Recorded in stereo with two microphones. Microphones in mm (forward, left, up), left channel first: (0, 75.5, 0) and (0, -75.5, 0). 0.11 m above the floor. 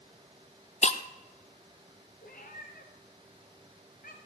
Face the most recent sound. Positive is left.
turn(degrees=75)  # may be behind; listen again after turning